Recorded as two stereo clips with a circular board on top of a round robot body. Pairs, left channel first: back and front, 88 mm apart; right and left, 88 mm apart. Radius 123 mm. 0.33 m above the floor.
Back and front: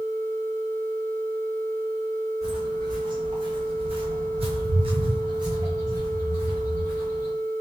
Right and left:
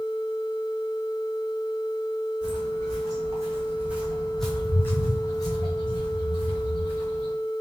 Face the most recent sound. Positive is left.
turn(degrees=-70)